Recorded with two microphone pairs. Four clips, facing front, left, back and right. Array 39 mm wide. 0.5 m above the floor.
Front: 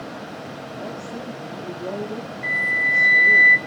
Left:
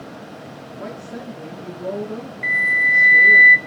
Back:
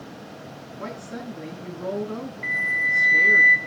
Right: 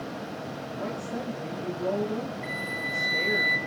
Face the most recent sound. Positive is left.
turn(degrees=100)